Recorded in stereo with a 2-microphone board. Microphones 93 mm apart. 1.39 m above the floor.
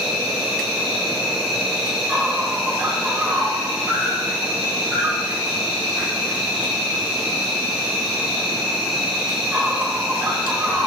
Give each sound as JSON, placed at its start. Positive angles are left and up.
{"t": 0.0, "sound": "an insect", "side_deg": -5, "distance_m": 1.1}